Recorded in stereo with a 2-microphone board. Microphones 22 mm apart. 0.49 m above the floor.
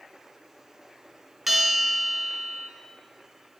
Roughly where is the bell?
Centre.